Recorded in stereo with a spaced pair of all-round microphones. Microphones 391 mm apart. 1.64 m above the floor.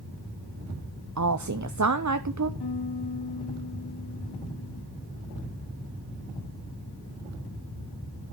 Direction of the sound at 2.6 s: 80° left.